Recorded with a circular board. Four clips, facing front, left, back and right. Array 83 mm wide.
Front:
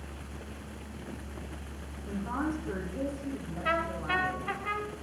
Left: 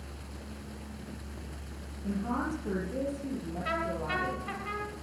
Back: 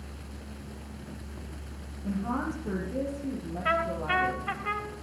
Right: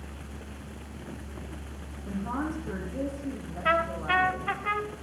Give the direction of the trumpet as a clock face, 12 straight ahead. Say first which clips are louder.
Right 8 dB, back 3 dB; 4 o'clock.